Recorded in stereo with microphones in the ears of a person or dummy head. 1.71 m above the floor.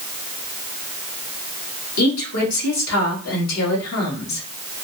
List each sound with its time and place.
2.0 s a woman speaking: 80° left, 1.8 m